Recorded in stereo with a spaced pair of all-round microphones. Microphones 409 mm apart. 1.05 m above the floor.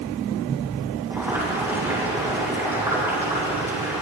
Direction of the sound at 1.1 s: 5° right (ahead or behind).